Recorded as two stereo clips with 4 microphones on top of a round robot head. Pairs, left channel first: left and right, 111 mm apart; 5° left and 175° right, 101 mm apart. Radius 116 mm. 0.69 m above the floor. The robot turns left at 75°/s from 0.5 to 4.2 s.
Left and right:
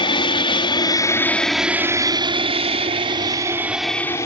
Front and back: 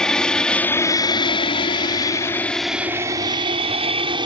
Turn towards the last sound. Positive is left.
turn(degrees=155)